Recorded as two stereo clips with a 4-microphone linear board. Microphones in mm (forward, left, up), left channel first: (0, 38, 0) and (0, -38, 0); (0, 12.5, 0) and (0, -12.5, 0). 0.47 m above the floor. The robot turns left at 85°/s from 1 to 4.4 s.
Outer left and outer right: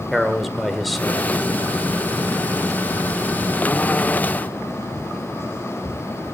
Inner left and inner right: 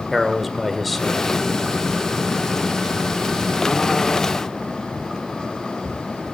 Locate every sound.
0.1 s a man speaking: centre (ahead or behind), 1.5 m; by 1.3 s 20° right (ahead or behind), 1.5 m